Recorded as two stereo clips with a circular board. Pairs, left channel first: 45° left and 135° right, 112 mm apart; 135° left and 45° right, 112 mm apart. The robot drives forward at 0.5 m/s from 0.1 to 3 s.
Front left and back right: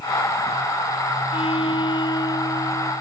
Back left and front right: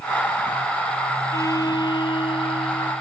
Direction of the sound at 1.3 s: 75° left.